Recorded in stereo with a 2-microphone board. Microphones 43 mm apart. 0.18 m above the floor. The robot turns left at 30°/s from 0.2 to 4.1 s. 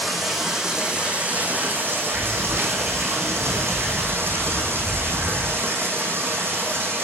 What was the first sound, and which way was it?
Running water, straight ahead.